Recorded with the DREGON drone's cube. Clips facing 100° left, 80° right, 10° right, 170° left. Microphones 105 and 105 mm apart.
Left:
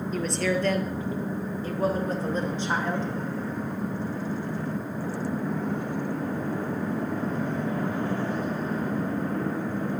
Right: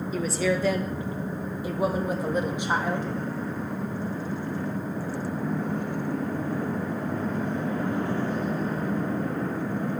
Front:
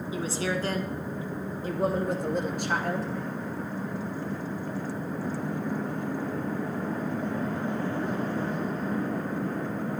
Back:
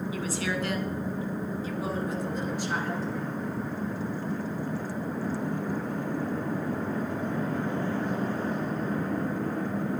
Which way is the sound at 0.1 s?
Straight ahead.